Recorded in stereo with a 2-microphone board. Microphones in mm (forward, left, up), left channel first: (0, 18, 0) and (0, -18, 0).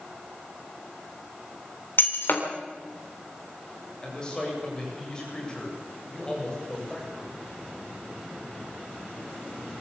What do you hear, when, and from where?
2.0 s breaking glass: 60° left (ahead or behind), 3 m
4.0 s a man speaking: 20° left (ahead or behind), 7.5 m